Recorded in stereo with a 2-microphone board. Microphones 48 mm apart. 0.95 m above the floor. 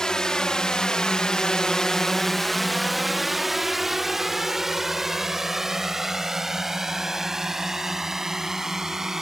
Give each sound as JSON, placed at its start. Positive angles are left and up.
{"t": 0.0, "sound": "a drone", "side_deg": 15}